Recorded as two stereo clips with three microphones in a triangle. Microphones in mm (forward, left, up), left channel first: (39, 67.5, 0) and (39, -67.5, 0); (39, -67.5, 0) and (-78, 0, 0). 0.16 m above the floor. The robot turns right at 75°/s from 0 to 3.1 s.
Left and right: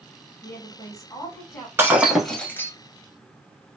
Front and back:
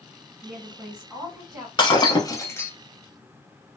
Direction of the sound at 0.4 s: 40° left.